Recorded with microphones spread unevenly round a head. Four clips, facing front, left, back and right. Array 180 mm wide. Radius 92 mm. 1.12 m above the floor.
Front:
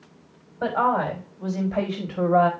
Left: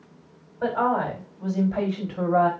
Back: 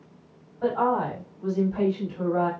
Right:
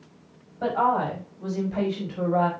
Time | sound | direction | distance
0.6 | a woman speaking | 5° right | 5 m